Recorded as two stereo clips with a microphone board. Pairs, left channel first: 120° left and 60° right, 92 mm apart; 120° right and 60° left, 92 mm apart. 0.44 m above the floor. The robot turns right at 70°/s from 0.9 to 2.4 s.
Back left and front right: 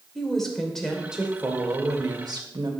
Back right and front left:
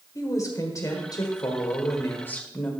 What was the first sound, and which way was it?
A woman speaking, 155° right.